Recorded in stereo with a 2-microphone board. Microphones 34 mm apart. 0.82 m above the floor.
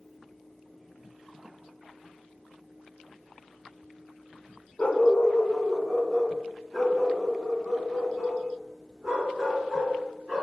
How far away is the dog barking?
About 0.8 m.